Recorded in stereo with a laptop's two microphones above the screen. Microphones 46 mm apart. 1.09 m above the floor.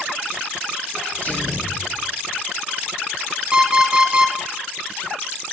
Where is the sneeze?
35° left (ahead or behind), 4 m.